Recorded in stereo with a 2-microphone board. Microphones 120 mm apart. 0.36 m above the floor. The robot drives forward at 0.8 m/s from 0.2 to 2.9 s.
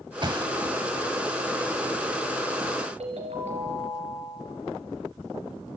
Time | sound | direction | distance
0.2 | a thud | 40° right (ahead or behind) | 0.9 m
3.0 | a ringtone | 65° right (ahead or behind) | 3.5 m